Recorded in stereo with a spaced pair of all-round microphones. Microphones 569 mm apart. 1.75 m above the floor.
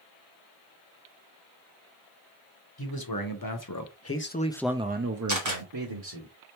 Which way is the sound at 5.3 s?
30° right (ahead or behind).